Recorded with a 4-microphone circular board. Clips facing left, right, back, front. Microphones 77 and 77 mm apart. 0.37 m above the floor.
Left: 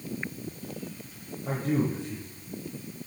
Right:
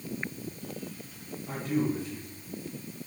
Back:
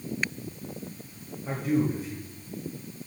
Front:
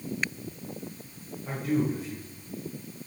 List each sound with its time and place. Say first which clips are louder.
1.4 s a man speaking: left 2 dB, back 1 dB; 95° left, 7.5 m